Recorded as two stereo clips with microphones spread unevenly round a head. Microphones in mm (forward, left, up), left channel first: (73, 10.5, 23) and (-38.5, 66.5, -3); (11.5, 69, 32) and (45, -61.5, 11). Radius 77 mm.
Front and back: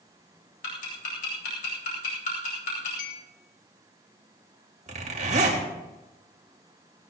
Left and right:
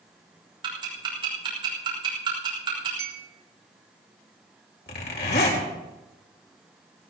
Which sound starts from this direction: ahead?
Ticking, at 0.6 s.